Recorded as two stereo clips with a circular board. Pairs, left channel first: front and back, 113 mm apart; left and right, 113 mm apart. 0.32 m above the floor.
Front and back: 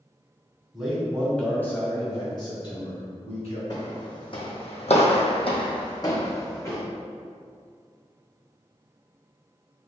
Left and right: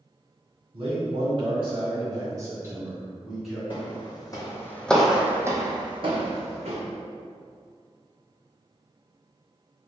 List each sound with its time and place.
0.7 s a man speaking: 95° right, 1.8 m; by 3.6 s 5° right, 1.9 m
3.7 s footsteps: 50° left, 1.1 m; by 6.8 s 70° right, 1.3 m